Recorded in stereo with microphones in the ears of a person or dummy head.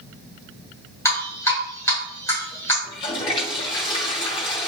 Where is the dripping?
15° left (ahead or behind), 2.5 m.